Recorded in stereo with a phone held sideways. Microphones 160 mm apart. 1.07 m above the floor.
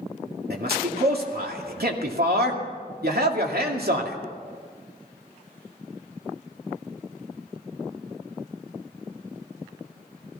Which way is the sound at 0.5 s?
80° right.